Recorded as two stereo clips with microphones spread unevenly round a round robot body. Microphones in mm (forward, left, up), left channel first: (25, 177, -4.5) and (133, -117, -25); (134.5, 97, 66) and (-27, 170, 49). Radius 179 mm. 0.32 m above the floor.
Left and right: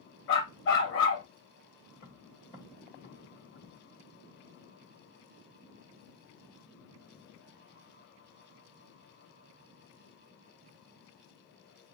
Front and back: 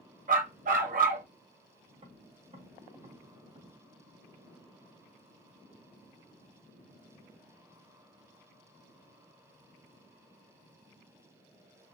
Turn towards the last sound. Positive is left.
turn(degrees=160)